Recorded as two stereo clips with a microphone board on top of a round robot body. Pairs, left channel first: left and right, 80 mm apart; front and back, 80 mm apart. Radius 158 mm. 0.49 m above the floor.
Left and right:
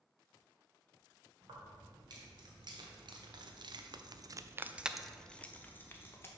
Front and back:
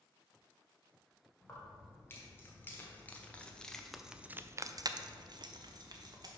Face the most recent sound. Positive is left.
turn(degrees=150)